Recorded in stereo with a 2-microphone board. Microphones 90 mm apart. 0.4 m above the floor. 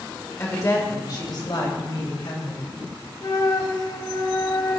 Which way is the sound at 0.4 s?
25° left (ahead or behind).